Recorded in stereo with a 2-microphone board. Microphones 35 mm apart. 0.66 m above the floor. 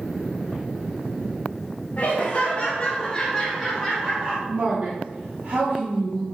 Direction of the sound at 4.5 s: 60° right (ahead or behind).